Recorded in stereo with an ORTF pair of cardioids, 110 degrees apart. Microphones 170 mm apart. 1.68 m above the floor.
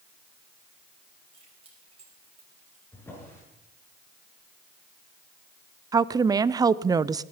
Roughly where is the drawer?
Ahead.